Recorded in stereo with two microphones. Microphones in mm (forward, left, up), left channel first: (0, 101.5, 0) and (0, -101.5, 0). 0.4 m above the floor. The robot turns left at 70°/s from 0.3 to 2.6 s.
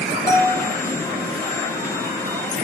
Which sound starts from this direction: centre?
A bell, at 0.3 s.